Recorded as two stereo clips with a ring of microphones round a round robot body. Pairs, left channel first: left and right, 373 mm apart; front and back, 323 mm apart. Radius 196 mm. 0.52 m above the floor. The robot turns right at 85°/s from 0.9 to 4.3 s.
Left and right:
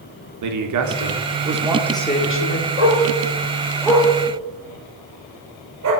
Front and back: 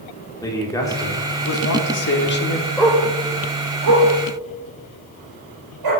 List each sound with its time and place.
0.4 s a man speaking: 75° right, 1.8 m; by 2.7 s 75° left, 1.8 m
2.8 s a dog barking: 90° left, 4.5 m; by 5.9 s 140° right, 4.5 m